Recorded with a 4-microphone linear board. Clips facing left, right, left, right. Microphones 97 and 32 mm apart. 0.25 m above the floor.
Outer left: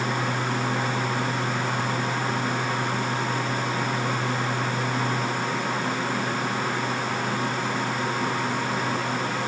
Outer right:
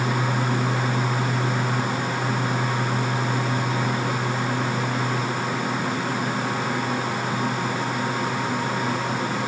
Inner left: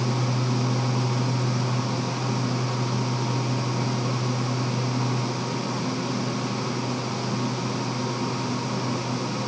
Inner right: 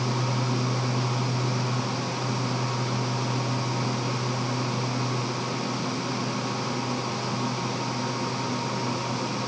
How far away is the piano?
No piano in this recording.